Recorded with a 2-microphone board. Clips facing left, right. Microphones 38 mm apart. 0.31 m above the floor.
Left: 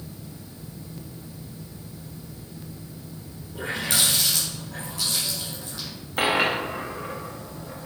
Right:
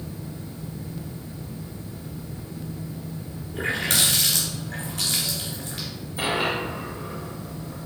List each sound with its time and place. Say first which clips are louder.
3.5 s a running tap: right 2 dB; 50° right (ahead or behind), 2.5 m
6.2 s a dropped coin: left 3 dB; 60° left (ahead or behind), 1.6 m